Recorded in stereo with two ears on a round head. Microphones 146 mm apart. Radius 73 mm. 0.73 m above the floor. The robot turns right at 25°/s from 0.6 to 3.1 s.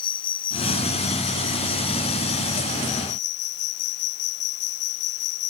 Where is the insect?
30° left; by 5.5 s 95° left.